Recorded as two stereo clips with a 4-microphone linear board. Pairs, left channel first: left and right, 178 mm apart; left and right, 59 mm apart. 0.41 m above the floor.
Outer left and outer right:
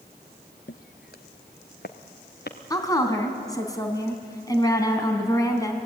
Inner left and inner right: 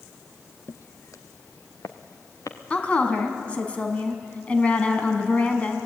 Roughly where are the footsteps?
Left.